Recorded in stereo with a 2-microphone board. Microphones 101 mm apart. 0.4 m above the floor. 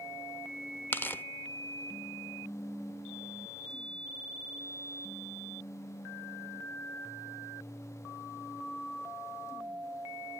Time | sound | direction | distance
0.9 | tearing paper | 20° left (ahead or behind) | 0.6 m